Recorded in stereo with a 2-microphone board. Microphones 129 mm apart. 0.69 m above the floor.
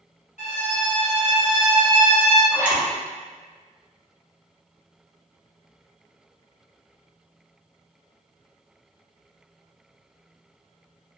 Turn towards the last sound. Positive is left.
turn(degrees=-15)  # may be behind; listen again after turning